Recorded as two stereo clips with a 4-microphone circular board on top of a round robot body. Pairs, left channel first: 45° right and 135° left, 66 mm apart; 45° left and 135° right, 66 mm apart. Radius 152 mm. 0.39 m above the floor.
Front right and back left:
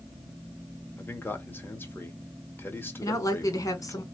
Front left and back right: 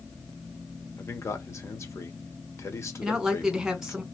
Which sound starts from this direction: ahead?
A man speaking, at 1.0 s.